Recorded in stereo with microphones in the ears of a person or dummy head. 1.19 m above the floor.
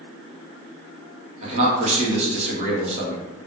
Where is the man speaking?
30° right (ahead or behind), 0.9 m.